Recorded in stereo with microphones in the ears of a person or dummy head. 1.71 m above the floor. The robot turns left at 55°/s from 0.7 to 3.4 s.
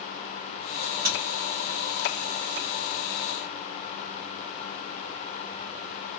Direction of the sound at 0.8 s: 50° right (ahead or behind).